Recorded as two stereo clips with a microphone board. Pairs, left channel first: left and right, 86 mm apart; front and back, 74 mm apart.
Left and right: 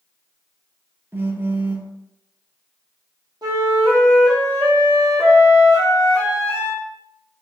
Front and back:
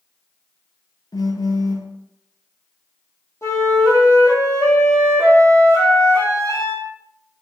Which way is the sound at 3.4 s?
50° right.